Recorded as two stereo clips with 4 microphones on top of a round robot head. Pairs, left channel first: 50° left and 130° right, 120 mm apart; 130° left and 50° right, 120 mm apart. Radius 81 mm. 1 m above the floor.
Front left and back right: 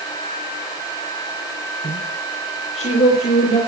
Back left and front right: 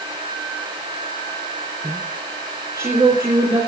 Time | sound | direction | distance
1.8 | a woman speaking | 20° left | 4 m